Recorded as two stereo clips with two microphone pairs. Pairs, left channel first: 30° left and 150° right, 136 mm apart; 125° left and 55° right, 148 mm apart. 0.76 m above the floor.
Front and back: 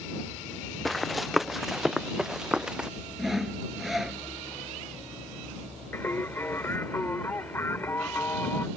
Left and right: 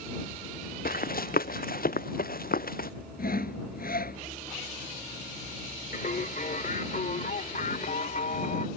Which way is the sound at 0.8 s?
120° left.